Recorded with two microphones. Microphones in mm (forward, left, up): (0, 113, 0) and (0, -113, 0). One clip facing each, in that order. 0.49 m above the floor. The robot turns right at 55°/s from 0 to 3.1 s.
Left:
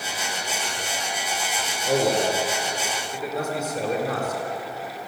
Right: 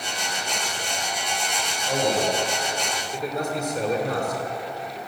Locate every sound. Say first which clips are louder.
1.9 s a man speaking: left 2 dB; 105° left, 7.5 m; by 4.4 s 175° left, 7.5 m